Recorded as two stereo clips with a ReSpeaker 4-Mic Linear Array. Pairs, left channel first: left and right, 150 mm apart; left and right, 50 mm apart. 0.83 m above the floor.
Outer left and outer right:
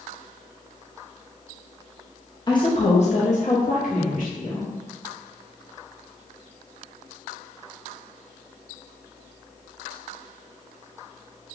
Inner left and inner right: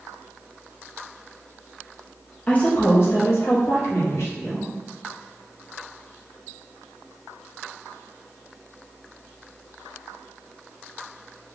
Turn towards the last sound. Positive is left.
turn(degrees=60)  # may be behind; listen again after turning